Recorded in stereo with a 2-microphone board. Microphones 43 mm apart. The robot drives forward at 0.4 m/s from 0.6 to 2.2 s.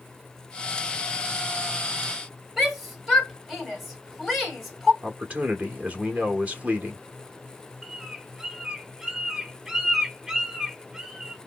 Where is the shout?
5° right (ahead or behind), 3 m.